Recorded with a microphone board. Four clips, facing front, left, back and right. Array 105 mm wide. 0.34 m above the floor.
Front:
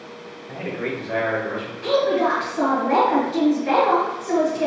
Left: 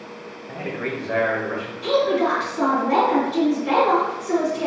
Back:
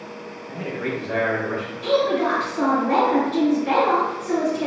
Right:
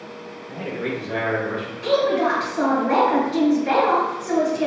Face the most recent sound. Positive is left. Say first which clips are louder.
# even, front 1 dB
turn(degrees=-60)